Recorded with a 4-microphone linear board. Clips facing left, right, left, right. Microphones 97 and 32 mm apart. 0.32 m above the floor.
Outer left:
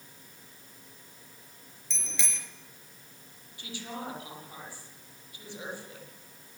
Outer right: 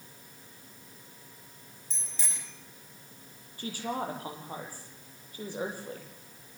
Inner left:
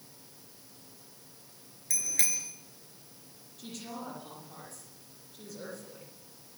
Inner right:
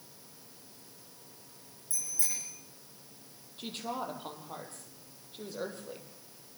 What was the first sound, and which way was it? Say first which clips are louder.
A bicycle bell: outer left 5 dB, inner left 6 dB; 75° left (ahead or behind).